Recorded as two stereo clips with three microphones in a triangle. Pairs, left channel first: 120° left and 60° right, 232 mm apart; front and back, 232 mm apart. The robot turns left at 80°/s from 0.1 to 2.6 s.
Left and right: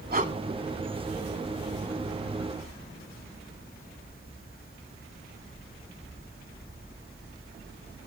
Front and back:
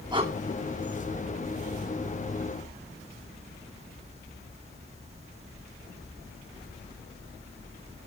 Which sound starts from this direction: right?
Breathing, at 0.1 s.